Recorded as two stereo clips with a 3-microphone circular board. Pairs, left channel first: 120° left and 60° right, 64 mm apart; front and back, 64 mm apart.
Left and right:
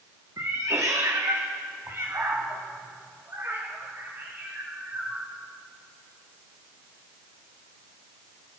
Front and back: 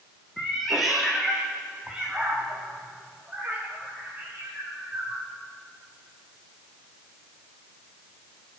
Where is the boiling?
No boiling in this recording.